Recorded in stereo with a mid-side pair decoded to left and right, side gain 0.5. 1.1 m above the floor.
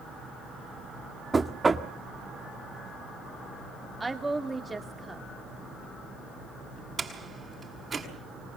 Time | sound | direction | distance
1.3 | knocking | 20° right | 1.8 m
4.0 | a woman speaking | 15° right | 3 m
7.0 | a door slam | 30° right | 6.5 m